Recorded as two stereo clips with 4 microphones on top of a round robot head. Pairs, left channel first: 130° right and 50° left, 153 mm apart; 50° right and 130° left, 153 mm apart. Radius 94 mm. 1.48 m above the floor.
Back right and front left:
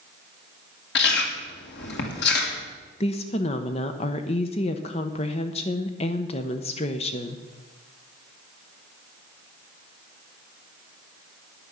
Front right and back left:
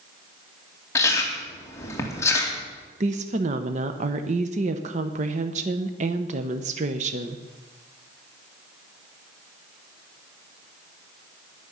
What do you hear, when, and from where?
0.9 s chewing: 125° right, 1.9 m
3.0 s a woman speaking: 175° left, 0.8 m